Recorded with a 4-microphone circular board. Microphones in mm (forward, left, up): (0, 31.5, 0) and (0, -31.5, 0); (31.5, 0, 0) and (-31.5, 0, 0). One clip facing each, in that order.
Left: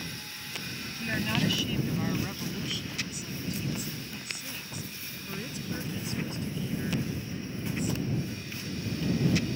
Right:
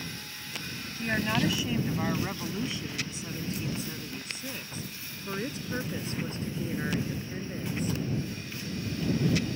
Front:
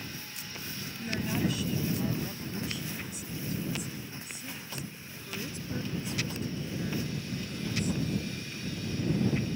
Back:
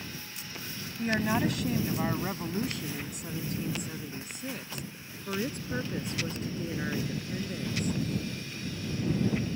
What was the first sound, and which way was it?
A woman speaking, 160° right.